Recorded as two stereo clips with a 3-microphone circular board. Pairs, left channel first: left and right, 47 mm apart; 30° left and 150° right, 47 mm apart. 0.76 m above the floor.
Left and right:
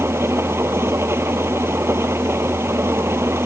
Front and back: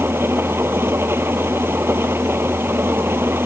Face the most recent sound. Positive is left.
turn(degrees=-115)